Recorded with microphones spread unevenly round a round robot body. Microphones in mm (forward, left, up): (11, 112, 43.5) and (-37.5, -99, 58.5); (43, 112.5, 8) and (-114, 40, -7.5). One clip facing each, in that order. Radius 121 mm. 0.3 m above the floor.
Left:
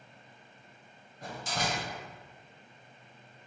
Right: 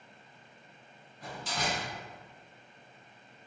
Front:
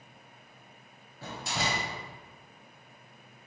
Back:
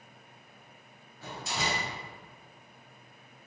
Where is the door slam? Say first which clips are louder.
Left 1 dB, front 1 dB; 45° left, 1.1 m.